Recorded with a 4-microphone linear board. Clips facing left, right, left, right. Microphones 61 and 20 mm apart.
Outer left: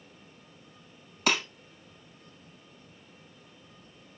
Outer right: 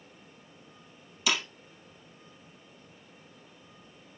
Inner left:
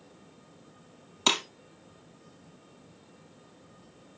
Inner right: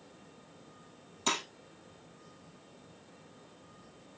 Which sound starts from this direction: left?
Breaking glass, at 1.3 s.